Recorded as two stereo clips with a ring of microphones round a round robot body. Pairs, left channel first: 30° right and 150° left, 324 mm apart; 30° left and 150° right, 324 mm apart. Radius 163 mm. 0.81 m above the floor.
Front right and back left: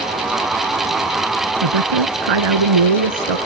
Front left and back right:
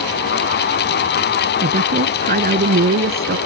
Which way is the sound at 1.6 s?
140° left.